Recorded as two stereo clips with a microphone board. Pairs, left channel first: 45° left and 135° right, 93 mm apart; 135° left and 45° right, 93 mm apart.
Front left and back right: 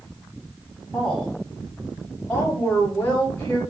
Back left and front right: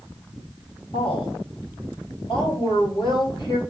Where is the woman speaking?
130° left, 4.5 m; by 3.6 s 115° left, 3 m.